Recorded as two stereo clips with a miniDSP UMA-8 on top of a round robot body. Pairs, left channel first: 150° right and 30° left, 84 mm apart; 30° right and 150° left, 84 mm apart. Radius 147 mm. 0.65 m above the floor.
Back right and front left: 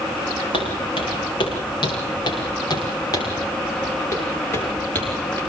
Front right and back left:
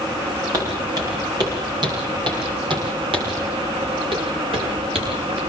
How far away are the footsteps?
About 8.5 m.